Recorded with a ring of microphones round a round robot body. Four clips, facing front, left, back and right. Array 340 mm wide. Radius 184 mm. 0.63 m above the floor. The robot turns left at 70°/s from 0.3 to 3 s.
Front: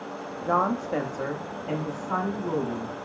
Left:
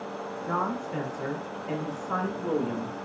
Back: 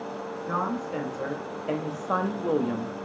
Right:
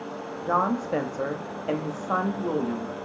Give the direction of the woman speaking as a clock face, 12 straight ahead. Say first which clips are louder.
Right 6 dB, front 5 dB; 1 o'clock.